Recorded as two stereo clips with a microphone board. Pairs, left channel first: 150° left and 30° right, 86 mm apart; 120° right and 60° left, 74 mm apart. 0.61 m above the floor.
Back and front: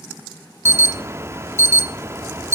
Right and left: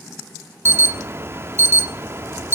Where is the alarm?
15° left, 0.9 m.